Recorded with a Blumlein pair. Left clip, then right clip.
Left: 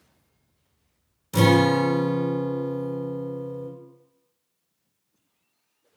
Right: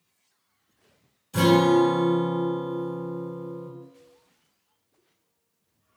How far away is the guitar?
About 1.0 m.